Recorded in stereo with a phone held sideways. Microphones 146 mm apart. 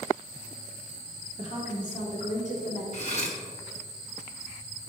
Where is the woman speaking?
50° left (ahead or behind), 2.5 m; by 2.8 s 60° left (ahead or behind), 3 m.